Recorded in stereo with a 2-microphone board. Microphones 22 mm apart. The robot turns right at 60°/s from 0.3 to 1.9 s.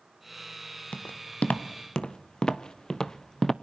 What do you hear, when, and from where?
0.9 s footsteps: 75° left (ahead or behind), 2 m; by 3.5 s 15° left (ahead or behind), 0.8 m